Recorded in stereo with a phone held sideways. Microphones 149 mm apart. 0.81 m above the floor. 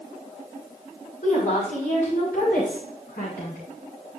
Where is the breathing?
I don't hear breathing.